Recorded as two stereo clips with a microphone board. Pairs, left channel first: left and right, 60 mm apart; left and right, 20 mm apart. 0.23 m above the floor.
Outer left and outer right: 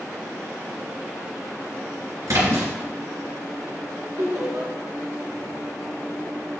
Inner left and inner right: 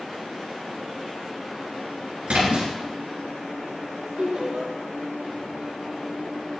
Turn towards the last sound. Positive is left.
turn(degrees=-70)  # may be behind; listen again after turning